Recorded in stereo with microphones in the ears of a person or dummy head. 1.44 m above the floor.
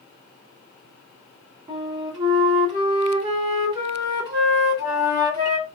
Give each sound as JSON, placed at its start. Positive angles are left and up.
{"t": 1.7, "sound": "a flute", "side_deg": -30, "distance_m": 2.0}